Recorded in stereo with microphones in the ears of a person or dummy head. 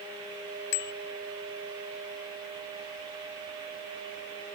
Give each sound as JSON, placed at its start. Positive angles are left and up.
{"t": 0.7, "sound": "a bicycle bell", "side_deg": 55}